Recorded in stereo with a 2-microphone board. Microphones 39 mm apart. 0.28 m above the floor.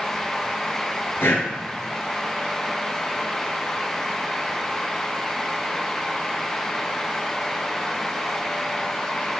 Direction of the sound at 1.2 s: 75° left (ahead or behind).